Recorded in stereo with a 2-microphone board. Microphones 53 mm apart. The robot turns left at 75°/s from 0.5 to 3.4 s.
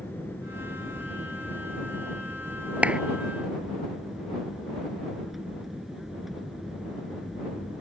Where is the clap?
30° right (ahead or behind); by 3.0 s 15° right (ahead or behind).